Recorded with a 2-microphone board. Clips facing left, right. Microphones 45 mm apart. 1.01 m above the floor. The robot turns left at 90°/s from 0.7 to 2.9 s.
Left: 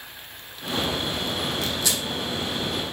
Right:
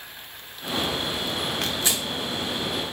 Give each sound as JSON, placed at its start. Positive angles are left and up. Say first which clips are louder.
{"t": 1.6, "sound": "tearing paper", "louder": "even", "side_deg": -50, "distance_m": 1.5}